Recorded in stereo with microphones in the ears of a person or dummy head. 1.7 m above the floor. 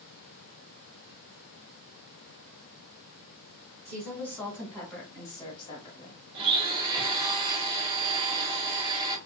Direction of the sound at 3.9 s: 20° right (ahead or behind).